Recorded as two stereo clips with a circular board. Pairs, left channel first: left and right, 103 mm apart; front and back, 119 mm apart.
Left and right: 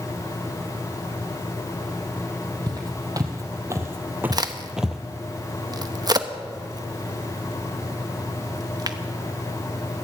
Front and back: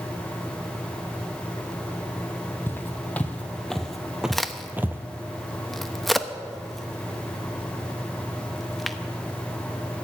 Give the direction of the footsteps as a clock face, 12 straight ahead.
2 o'clock.